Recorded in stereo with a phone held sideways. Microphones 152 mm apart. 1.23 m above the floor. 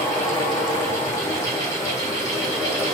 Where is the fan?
20° left (ahead or behind), 1.2 m.